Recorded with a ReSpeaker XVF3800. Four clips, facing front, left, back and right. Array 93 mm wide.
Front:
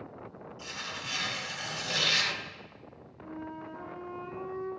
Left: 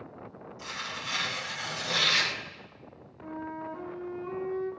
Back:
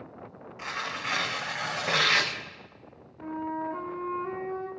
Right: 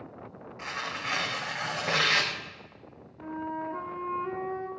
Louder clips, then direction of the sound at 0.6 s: Right 4 dB, back 8 dB; 140° right.